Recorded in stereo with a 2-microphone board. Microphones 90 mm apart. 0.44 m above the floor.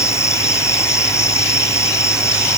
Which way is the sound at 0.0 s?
35° left (ahead or behind).